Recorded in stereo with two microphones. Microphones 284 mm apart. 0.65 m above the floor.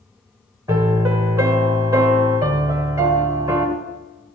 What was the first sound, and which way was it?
A piano, 10° right (ahead or behind).